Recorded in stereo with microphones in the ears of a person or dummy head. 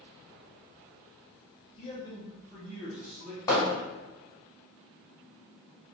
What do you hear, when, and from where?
1.8 s a man speaking: 35° left (ahead or behind), 0.6 m; by 3.4 s 15° right (ahead or behind), 1.0 m
3.5 s hammering: 20° left (ahead or behind), 1.3 m